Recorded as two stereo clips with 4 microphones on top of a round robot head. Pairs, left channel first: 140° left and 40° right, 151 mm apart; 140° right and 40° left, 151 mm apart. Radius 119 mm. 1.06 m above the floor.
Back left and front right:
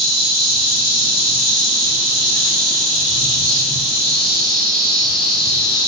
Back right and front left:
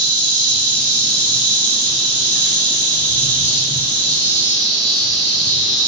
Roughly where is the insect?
Ahead left.